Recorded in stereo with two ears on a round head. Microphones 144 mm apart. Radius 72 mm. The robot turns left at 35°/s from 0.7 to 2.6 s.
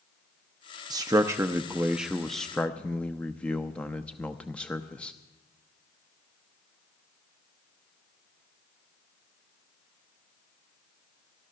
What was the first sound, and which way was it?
A man speaking, 25° right (ahead or behind).